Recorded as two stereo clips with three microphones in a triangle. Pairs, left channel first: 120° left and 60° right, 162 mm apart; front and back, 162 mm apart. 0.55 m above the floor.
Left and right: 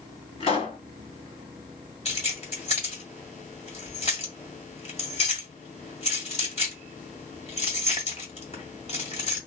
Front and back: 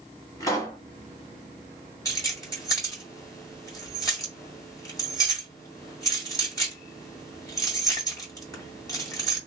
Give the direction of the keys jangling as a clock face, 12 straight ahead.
10 o'clock.